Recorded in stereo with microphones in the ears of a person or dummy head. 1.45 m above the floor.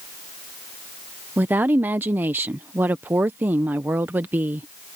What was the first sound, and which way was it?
A woman speaking, 15° right (ahead or behind).